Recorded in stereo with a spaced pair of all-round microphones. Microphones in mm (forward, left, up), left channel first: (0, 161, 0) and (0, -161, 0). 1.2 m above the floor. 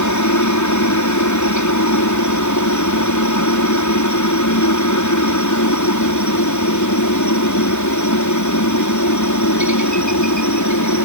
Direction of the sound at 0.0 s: 65° left (ahead or behind).